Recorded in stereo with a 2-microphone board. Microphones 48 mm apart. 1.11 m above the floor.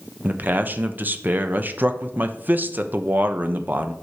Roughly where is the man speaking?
Right.